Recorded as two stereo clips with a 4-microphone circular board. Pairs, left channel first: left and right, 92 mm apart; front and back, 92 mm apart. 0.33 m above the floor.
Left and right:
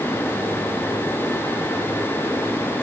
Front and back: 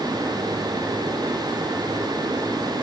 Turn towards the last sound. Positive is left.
No sound to turn to.